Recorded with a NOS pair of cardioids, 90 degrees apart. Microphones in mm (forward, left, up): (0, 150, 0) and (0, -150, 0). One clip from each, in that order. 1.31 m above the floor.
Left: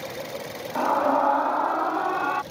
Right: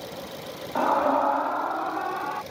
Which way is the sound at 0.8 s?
5° right.